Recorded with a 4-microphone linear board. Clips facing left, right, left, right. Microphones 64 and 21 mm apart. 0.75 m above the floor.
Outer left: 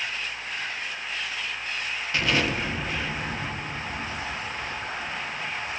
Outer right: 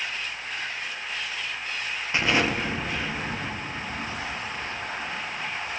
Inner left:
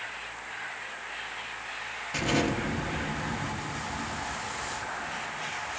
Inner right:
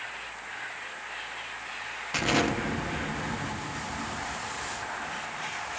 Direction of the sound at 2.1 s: 25° right (ahead or behind).